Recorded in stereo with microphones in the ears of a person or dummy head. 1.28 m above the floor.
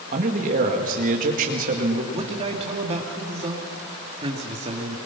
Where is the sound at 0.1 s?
45° right (ahead or behind), 2 m.